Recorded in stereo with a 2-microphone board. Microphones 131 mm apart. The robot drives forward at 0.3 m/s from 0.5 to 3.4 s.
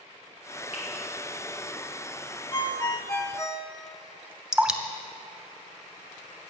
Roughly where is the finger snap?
Left.